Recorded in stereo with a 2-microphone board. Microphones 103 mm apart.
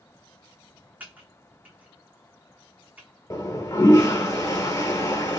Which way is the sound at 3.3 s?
35° left (ahead or behind).